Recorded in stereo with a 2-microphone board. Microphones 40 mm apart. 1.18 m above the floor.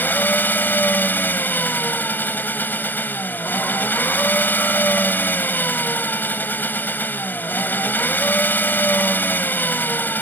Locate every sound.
0.0 s an engine running: 55° left (ahead or behind)